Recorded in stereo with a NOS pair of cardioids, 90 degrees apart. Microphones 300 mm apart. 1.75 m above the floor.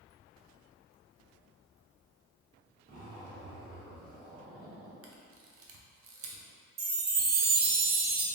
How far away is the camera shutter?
About 0.6 m.